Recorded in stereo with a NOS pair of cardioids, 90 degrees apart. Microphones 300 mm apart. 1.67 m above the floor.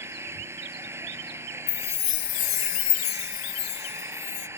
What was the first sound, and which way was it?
An engine running, 10° right.